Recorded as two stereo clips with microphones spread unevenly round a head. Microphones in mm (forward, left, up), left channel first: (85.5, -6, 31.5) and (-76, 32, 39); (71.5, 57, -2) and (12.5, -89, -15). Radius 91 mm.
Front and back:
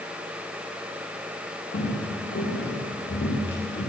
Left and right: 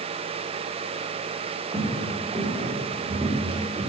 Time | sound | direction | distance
1.7 | footsteps | 45° right | 9 m